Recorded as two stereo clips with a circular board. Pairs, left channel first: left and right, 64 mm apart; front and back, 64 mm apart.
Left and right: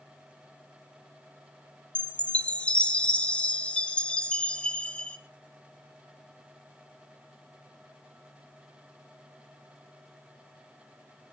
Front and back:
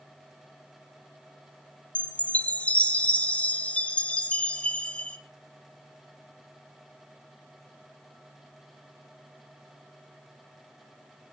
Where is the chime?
40° left, 1.6 m.